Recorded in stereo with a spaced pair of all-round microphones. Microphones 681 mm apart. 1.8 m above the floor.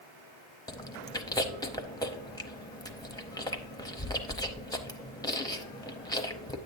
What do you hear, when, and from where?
0.7 s chewing: 5° left (ahead or behind), 0.7 m